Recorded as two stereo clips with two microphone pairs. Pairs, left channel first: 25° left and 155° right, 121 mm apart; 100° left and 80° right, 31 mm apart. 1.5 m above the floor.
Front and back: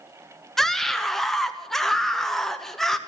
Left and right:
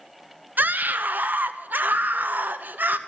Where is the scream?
65° right, 0.9 m.